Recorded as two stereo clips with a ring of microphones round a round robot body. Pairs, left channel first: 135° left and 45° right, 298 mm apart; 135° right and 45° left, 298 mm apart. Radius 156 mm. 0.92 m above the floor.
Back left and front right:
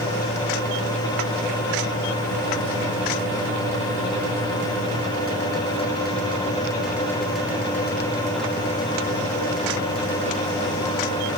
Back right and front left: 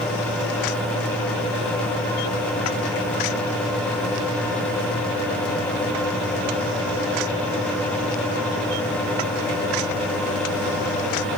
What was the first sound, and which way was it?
Only background noise.